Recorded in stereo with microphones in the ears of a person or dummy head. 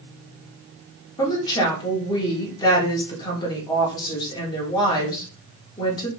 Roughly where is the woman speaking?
Left.